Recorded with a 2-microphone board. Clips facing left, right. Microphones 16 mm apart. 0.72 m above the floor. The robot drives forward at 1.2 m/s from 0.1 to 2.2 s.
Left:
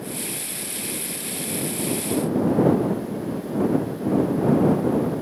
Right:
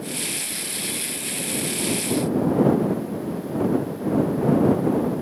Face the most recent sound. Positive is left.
No sound to turn to.